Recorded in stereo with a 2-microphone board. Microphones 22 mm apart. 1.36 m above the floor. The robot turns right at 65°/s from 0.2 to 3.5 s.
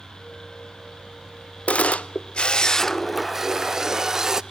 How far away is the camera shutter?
About 0.5 m.